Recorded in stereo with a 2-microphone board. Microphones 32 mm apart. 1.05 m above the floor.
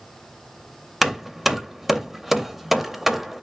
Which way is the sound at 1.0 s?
5° right (ahead or behind).